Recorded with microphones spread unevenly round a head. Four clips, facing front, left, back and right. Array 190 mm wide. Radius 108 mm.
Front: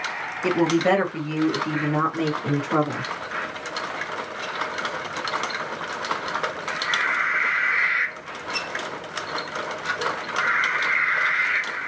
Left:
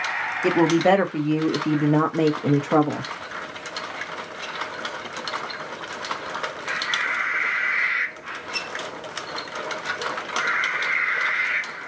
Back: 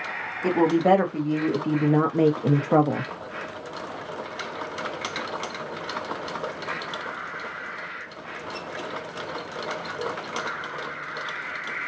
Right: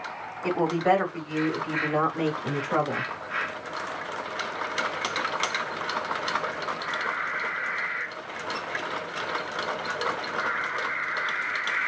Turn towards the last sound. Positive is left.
turn(degrees=155)